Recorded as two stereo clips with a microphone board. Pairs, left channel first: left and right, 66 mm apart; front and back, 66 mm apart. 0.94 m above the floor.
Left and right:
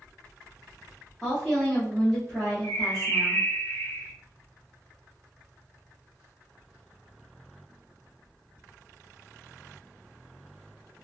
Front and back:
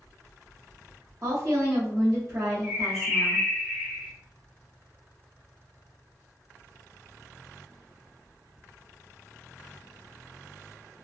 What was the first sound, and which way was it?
A woman speaking, 170° left.